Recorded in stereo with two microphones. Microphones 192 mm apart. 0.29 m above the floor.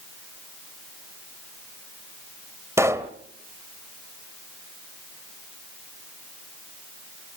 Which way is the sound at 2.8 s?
15° right (ahead or behind).